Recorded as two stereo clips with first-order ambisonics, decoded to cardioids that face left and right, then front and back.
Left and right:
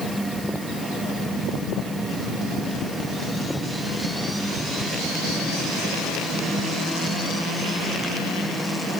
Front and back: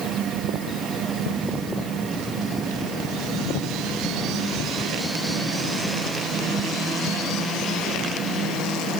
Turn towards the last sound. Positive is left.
No sound to turn to.